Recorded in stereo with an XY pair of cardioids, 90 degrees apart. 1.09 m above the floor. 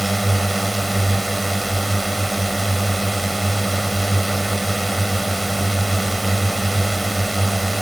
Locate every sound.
0.0 s a drone: 5° right